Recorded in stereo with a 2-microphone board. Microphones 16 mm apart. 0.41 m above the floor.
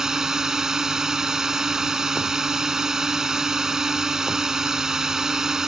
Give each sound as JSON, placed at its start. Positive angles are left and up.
{"t": 0.0, "sound": "a drone", "side_deg": -35}